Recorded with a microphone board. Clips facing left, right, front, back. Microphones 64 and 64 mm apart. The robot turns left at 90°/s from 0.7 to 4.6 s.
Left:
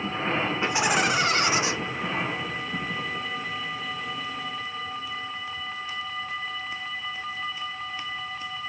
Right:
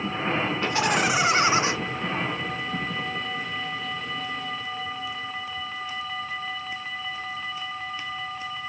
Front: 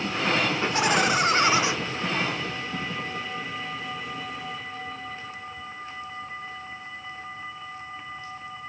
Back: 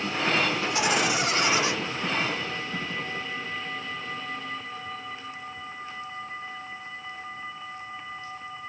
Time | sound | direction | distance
0.6 | laughter | 30° left | 1.1 m